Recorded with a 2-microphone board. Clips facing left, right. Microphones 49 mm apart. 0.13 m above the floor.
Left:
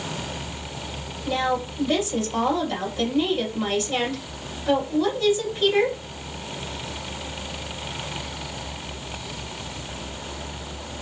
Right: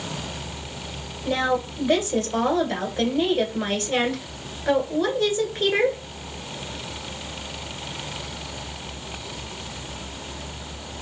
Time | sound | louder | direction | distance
1.2 | a woman speaking | right 1 dB | 45° right (ahead or behind) | 1.6 m